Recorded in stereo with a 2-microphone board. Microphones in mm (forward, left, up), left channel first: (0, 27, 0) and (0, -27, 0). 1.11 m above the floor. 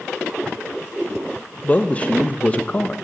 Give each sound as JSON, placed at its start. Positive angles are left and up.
{"t": 1.6, "sound": "a man speaking", "side_deg": 25, "distance_m": 1.1}